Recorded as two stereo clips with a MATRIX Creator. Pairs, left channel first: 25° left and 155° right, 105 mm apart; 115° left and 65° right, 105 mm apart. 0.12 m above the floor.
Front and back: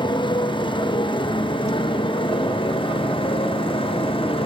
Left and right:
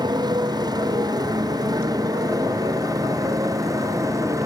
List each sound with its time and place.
0.0 s a motorcycle: 20° right; by 4.5 s 10° right